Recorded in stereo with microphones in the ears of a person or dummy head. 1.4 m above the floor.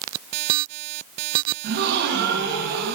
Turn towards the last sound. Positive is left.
turn(degrees=-60)  # may be behind; listen again after turning